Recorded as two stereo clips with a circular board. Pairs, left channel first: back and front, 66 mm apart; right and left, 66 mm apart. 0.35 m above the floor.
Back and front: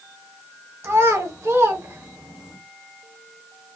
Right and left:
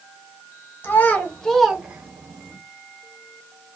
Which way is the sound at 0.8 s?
40° right.